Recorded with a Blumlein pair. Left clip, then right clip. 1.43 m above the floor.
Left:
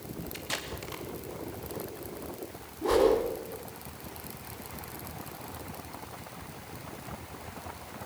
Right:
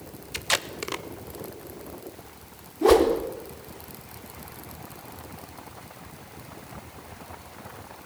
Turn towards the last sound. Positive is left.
turn(degrees=-30)